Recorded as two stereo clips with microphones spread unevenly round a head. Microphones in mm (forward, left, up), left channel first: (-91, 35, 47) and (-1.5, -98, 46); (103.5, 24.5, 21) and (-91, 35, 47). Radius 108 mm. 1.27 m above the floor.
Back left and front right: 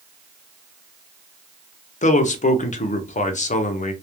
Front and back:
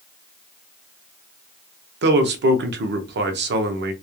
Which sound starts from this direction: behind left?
A man speaking, at 2.0 s.